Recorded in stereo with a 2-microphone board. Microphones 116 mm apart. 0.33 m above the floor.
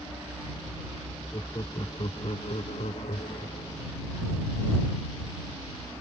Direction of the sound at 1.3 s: 35° left (ahead or behind).